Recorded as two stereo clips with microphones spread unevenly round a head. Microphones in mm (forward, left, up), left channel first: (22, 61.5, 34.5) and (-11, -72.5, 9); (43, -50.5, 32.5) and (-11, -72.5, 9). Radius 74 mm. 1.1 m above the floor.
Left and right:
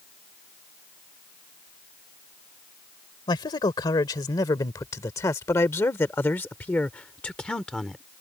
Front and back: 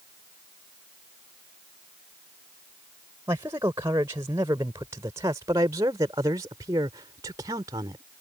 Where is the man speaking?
140° left; by 8.1 s 165° left.